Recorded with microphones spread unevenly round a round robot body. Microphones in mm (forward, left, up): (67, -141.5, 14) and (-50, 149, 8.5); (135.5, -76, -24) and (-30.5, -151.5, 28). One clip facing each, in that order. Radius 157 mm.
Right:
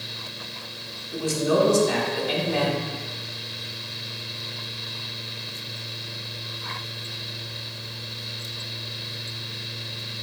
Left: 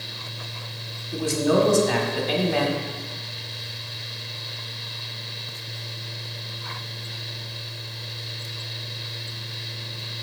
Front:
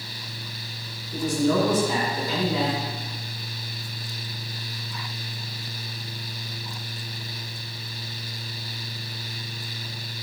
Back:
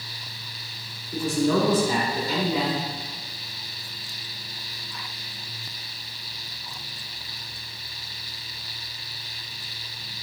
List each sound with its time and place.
1.1 s a man speaking: 115° left, 2 m